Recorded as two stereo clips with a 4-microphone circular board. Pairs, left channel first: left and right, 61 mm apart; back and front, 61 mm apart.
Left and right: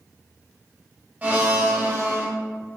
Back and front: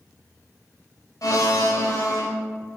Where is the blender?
160° right, 0.9 m.